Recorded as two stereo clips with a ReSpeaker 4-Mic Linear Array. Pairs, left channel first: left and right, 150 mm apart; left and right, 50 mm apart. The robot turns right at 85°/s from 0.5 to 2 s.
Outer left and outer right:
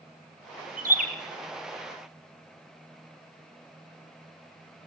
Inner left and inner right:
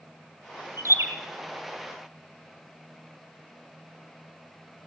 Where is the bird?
60° right (ahead or behind), 2.5 m.